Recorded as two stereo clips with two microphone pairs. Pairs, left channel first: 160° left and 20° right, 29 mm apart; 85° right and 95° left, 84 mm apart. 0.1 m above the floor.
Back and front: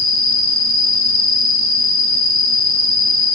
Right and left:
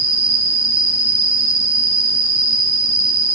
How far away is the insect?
About 0.7 m.